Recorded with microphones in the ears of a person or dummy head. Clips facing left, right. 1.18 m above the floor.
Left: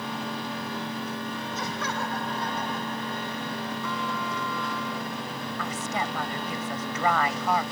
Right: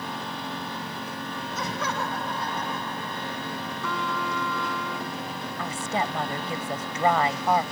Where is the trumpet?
65° right (ahead or behind).